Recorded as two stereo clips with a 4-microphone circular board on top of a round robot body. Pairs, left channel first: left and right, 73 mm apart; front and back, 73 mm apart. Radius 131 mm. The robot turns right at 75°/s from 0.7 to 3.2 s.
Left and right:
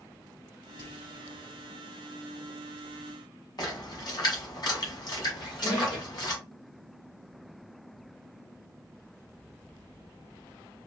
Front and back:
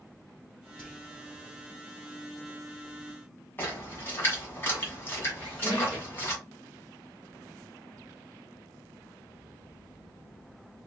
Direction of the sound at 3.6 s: 60° left.